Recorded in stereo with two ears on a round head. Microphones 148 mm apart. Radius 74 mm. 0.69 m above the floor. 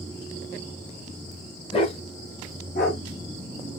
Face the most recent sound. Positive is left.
turn(degrees=60)  # may be behind; listen again after turning